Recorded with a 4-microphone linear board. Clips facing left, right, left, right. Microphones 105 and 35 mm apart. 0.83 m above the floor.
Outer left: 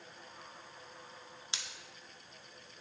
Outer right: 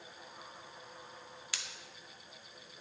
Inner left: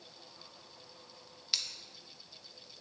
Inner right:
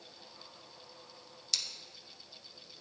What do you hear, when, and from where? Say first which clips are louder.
1.5 s scissors: outer left 1 dB, inner left 1 dB; 25° left (ahead or behind), 0.5 m